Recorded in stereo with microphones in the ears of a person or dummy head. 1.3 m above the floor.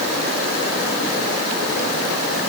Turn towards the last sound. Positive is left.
No sound to turn to.